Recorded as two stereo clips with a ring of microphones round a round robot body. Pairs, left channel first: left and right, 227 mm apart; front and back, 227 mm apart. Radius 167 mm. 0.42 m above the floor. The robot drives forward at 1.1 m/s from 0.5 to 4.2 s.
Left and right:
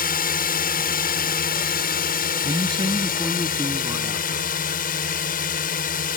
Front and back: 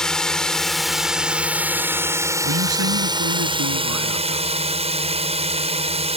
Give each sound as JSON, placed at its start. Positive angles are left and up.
{"t": 0.0, "sound": "a drone", "azimuth_deg": 85}
{"t": 2.4, "sound": "a man speaking", "azimuth_deg": -165}